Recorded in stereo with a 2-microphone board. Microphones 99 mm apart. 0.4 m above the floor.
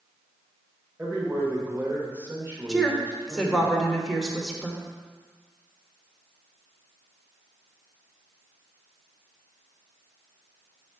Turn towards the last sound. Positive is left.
turn(degrees=0)  # may be behind; listen again after turning